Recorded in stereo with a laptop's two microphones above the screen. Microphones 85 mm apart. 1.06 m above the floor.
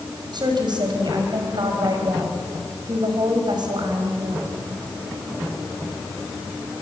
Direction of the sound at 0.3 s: 60° right (ahead or behind).